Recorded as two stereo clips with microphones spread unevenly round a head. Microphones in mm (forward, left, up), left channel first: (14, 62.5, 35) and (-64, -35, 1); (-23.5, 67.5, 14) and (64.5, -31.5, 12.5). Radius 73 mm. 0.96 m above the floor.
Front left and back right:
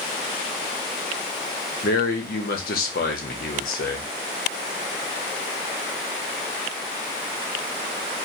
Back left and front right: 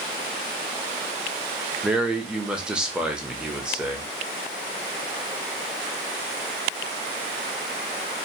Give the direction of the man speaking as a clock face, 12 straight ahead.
11 o'clock.